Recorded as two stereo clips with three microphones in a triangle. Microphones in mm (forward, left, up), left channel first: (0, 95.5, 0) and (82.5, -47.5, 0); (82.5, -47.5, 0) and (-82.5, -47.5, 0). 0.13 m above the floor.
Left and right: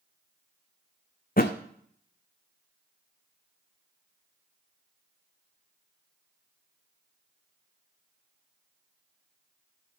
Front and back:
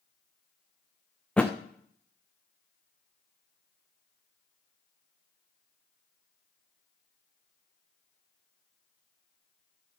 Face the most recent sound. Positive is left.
turn(degrees=85)